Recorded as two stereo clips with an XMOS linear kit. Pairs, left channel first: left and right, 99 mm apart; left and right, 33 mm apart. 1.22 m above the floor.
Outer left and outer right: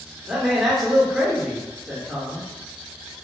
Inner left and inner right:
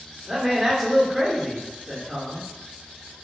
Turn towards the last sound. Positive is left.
turn(degrees=0)  # may be behind; listen again after turning